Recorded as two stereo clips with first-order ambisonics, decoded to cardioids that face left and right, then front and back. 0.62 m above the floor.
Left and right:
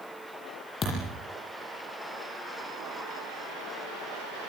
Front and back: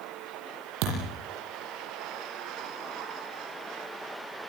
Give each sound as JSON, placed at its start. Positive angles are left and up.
{"t": 0.8, "sound": "a thud", "azimuth_deg": 160, "distance_m": 9.0}